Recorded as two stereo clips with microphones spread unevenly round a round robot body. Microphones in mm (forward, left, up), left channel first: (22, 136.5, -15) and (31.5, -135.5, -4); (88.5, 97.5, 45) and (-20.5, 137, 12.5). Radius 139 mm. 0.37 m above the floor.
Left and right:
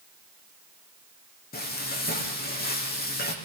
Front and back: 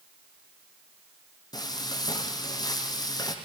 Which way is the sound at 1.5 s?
35° left.